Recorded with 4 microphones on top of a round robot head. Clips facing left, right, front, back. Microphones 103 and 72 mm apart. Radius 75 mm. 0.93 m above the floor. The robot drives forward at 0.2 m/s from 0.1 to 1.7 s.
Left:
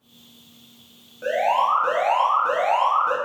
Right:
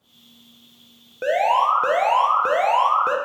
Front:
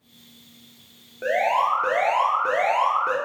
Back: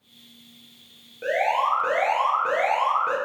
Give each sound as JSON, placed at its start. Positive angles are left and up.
{"t": 1.2, "sound": "an alarm", "azimuth_deg": -70, "distance_m": 0.5}